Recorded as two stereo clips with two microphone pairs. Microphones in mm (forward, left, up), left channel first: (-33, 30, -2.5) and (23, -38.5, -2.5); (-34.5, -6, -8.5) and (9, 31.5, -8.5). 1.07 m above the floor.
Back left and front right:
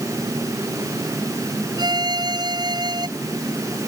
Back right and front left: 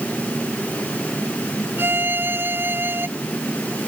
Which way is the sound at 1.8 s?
15° right.